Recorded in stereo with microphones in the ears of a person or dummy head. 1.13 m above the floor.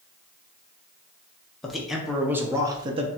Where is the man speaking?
Centre (ahead or behind), 1.2 m; by 3.1 s 35° right (ahead or behind), 0.8 m.